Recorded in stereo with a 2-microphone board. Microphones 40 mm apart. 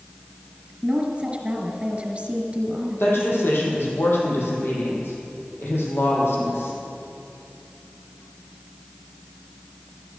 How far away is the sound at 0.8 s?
About 1.4 m.